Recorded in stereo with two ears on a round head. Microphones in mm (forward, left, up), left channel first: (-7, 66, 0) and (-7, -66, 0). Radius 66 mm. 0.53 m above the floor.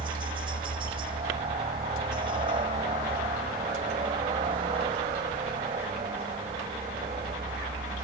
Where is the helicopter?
35° right (ahead or behind).